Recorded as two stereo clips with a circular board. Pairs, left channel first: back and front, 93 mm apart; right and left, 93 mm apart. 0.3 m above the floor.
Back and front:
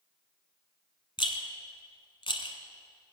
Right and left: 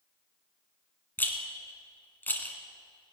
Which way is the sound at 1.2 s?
160° right.